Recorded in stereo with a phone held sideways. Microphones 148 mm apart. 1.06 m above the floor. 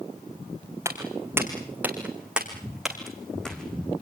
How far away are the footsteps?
About 4 m.